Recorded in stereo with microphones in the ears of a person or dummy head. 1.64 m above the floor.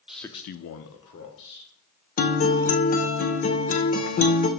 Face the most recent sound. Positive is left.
turn(degrees=40)  # may be behind; listen again after turning